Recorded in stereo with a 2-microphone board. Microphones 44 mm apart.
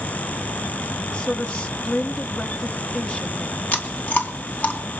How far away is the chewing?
About 3 m.